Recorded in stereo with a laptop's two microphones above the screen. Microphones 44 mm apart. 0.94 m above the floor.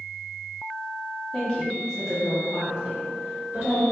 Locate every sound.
1.3 s a woman speaking: 25° left (ahead or behind), 0.9 m; by 3.8 s 45° right (ahead or behind), 1.4 m